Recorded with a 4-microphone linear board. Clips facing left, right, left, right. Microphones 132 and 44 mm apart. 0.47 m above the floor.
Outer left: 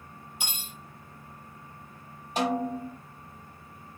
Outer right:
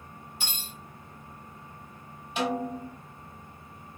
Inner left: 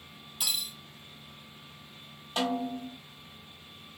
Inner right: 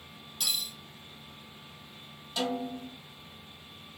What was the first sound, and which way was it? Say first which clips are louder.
Cutlery clinking: outer left 1 dB, even; 15° left (ahead or behind).